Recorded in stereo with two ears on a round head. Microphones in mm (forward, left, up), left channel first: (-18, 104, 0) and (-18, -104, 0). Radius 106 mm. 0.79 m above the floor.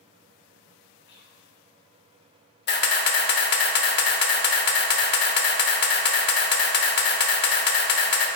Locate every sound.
1.1 s whispering: 50° left (ahead or behind), 0.9 m
2.7 s a camera shutter: 45° left (ahead or behind), 0.7 m